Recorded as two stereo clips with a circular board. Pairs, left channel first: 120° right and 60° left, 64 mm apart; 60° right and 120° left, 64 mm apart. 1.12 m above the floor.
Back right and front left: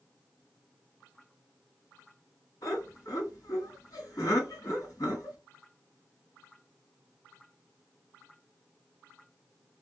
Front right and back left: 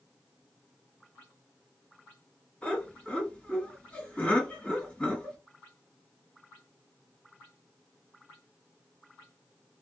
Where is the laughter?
130° right, 1.7 m.